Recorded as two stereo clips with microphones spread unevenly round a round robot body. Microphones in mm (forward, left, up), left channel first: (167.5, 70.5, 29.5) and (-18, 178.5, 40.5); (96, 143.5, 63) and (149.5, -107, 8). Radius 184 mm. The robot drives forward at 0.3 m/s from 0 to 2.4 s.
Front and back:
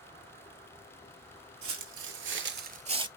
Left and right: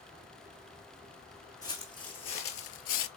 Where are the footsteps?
175° left, 0.5 m; by 3.1 s 80° left, 0.6 m.